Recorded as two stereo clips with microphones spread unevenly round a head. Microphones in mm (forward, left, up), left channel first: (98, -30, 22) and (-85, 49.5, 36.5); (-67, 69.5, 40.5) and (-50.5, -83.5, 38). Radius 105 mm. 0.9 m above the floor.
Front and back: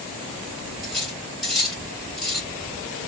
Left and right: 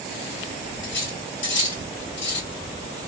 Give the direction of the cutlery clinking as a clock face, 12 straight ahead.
10 o'clock.